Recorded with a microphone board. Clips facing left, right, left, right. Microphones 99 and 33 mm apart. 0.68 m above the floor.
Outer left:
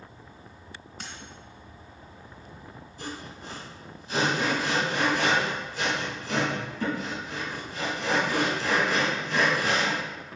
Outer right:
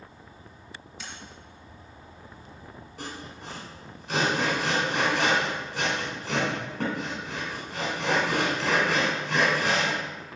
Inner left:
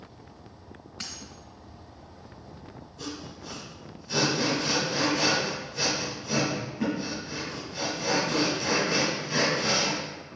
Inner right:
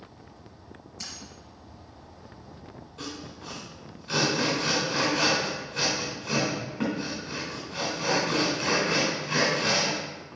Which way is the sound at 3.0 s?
70° right (ahead or behind).